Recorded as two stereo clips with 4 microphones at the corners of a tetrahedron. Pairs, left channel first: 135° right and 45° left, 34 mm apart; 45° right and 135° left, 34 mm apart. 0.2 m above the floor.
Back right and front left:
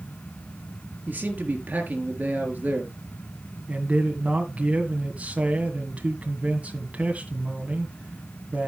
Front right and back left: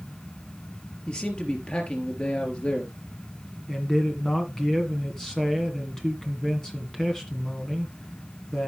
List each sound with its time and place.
1.1 s a man speaking: 10° left, 4 m
3.7 s a man speaking: 20° left, 1.9 m